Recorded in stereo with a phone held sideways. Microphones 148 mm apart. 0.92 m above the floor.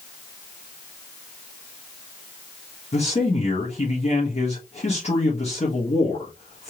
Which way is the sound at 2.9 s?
45° left (ahead or behind).